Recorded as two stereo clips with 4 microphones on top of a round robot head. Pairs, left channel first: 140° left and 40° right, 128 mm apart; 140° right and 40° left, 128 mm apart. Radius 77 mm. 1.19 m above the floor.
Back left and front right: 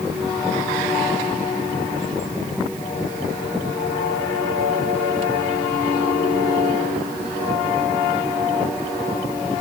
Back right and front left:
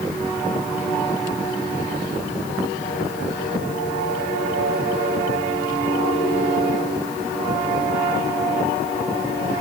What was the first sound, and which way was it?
Only background noise.